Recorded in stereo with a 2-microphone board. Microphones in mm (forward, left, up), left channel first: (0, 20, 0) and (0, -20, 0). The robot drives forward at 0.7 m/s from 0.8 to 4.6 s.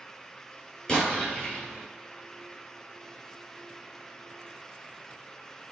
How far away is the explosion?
About 4.5 m.